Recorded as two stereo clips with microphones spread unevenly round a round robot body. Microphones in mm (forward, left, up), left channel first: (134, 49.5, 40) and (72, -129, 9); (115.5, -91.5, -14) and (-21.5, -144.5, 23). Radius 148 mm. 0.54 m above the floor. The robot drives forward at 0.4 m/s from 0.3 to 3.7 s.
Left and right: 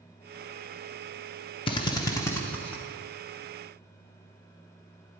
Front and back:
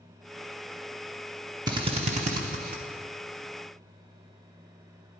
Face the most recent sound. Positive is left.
turn(degrees=170)